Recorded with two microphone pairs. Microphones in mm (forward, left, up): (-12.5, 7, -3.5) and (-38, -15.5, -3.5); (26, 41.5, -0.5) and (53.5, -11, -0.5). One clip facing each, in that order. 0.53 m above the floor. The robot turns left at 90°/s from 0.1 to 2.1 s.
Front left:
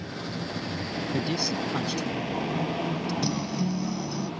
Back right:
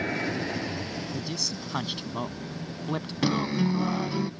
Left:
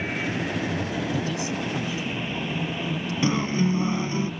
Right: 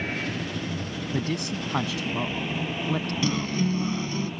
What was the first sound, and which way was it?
A vehicle, 155° right.